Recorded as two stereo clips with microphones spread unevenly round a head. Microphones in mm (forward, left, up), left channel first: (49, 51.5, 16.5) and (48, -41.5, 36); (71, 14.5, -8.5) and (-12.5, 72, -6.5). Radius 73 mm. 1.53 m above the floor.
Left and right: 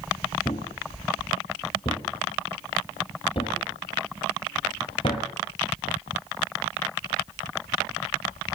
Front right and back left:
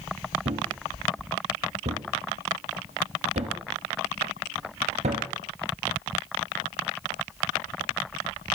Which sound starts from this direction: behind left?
A thud, at 0.5 s.